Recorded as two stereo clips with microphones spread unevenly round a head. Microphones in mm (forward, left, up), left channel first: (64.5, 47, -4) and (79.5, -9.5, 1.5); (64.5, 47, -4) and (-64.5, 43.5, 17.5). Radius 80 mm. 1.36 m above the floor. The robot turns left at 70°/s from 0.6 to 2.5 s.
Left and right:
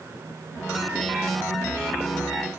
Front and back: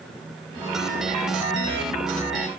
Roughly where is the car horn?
I don't hear a car horn.